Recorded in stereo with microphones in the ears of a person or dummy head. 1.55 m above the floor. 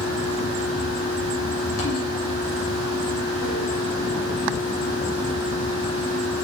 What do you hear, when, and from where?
0.0 s a fan: 80° left, 2.5 m